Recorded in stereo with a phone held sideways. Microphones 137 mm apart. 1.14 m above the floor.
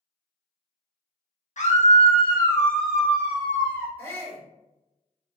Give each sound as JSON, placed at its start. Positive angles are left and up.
{"t": 1.6, "sound": "a scream", "side_deg": 60, "distance_m": 0.9}
{"t": 4.0, "sound": "a shout", "side_deg": 20, "distance_m": 1.6}